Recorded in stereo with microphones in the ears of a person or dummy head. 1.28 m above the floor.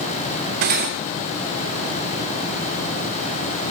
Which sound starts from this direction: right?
Cutlery clinking, at 0.6 s.